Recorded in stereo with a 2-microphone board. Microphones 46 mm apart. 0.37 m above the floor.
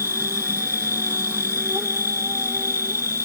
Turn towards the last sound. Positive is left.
turn(degrees=-85)